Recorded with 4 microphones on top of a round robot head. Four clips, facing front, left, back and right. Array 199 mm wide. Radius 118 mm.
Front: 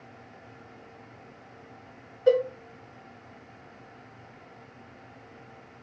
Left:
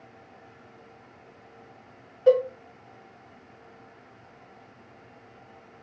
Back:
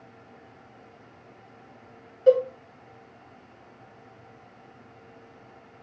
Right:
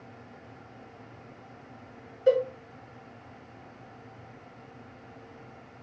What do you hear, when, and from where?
2.3 s a cowbell: 105° left, 1.5 m